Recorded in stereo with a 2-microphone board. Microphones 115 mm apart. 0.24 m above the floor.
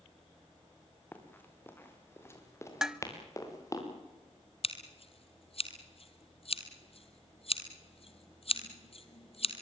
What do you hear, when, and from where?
1.1 s running footsteps: 15° left (ahead or behind), 4.5 m; by 3.8 s 30° left (ahead or behind), 6 m
2.8 s dishes clattering: 5° right (ahead or behind), 0.7 m
4.6 s scissors: 55° left (ahead or behind), 1.9 m